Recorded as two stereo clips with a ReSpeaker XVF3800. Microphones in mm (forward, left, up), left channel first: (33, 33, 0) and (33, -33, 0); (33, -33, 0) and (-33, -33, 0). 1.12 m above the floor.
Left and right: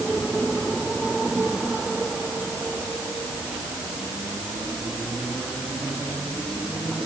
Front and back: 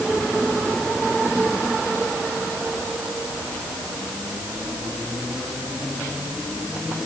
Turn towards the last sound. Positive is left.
No sound to turn to.